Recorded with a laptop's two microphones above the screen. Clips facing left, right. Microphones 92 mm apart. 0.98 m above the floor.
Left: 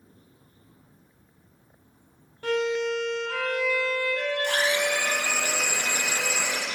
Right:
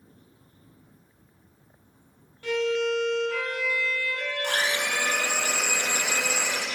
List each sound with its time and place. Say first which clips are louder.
2.4 s a violin: even; 45° left (ahead or behind), 0.6 m
4.4 s a blender: left 1 dB; 55° right (ahead or behind), 1.3 m